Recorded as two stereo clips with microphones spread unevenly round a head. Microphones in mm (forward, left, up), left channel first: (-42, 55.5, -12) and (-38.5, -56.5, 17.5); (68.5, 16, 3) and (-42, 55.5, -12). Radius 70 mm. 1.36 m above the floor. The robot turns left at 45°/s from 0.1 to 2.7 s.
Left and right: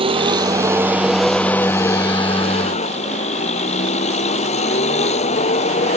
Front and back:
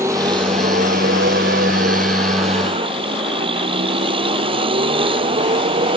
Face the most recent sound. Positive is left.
turn(degrees=115)